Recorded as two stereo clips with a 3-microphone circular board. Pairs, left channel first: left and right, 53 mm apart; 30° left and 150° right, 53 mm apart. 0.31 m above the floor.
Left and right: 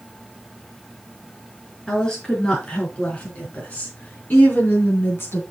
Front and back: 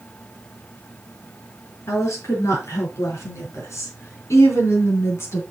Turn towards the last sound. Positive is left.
turn(degrees=55)